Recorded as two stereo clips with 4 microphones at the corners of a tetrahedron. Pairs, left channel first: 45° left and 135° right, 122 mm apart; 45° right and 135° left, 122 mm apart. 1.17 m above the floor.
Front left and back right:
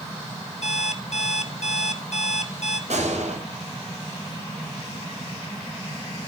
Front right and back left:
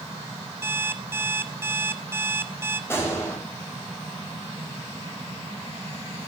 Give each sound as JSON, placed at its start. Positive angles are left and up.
{"t": 0.6, "sound": "an alarm clock", "azimuth_deg": 65, "distance_m": 1.4}
{"t": 2.9, "sound": "a gunshot", "azimuth_deg": -115, "distance_m": 6.5}